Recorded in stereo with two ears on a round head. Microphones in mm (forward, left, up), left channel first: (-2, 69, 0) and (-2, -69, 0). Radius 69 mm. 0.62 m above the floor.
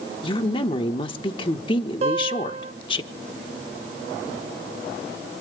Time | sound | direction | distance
0.2 | a woman speaking | 35° left (ahead or behind) | 1.2 m
2.0 | a guitar | 45° right (ahead or behind) | 5.5 m